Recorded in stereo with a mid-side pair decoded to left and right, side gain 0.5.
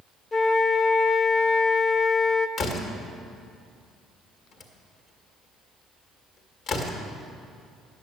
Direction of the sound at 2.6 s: 65° left.